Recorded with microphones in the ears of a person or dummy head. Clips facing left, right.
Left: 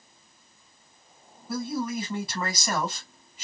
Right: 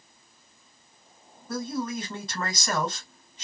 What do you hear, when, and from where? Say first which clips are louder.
1.5 s a man speaking: left 1 dB; 10° left (ahead or behind), 1.8 m